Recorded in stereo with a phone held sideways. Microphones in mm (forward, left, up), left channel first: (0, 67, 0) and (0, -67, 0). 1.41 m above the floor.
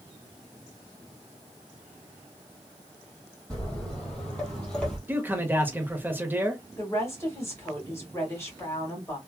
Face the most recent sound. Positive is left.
turn(degrees=20)  # may be behind; listen again after turning